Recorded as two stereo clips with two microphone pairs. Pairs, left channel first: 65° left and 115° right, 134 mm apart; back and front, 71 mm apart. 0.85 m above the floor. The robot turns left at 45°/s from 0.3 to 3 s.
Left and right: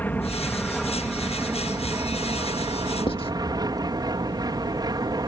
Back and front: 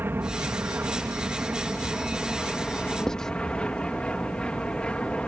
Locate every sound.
0.0 s an aircraft: straight ahead; by 5.3 s 120° right
3.1 s writing: 100° left